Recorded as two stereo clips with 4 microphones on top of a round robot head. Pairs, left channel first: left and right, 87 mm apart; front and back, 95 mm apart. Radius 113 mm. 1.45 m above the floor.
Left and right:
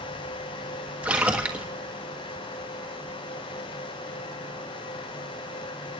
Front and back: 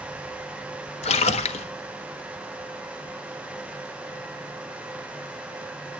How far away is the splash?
About 1.2 m.